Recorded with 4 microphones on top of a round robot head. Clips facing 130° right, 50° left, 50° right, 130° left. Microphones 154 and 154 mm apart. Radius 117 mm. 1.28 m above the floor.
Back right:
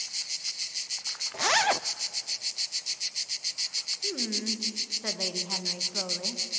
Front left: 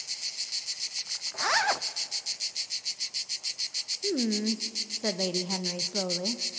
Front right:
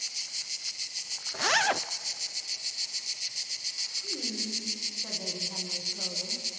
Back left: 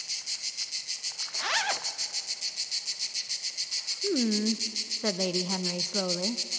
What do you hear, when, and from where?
1.3 s a zipper: 70° right, 0.6 m
4.0 s a woman speaking: 110° left, 1.1 m